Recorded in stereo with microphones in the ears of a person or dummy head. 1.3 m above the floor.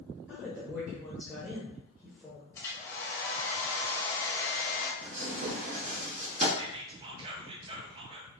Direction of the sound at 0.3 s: Centre (ahead or behind).